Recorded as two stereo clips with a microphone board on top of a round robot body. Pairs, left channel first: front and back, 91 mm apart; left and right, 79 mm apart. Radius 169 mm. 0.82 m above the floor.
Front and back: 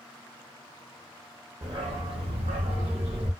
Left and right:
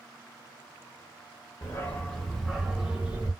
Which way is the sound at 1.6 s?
135° left.